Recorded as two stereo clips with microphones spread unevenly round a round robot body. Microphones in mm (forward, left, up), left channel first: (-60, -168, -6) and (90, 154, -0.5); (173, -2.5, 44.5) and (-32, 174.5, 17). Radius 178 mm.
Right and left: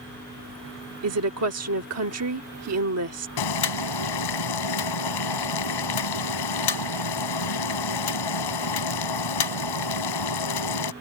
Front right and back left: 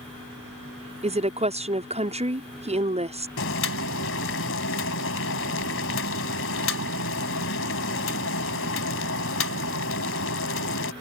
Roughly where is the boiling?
Right.